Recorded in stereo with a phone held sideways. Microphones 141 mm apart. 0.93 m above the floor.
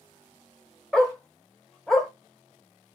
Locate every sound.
0.9 s a dog barking: 5° left (ahead or behind), 1.1 m